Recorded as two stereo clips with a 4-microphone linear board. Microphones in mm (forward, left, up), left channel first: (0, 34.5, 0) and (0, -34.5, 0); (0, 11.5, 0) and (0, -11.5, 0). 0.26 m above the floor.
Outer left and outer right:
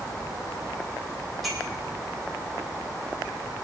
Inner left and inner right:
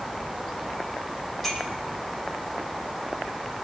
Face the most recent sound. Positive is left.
turn(degrees=0)  # may be behind; listen again after turning